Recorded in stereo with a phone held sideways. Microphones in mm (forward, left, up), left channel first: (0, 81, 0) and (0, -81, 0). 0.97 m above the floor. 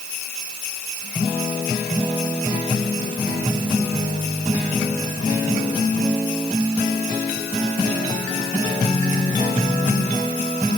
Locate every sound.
Only background noise.